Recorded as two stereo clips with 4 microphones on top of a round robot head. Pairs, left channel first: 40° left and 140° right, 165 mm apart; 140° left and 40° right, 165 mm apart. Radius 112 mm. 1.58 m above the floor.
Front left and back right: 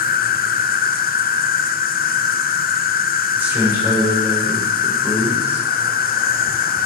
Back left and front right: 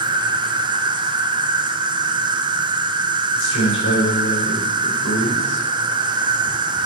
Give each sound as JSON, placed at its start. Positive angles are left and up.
{"t": 0.0, "sound": "an insect", "azimuth_deg": 20, "distance_m": 0.9}
{"t": 3.4, "sound": "a man speaking", "azimuth_deg": 140, "distance_m": 5.0}